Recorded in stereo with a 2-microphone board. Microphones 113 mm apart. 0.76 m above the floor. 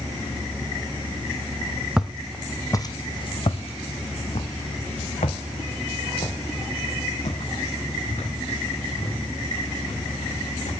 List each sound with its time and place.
2.0 s footsteps: 5° right (ahead or behind), 1.3 m; by 10.7 s 85° left, 9.5 m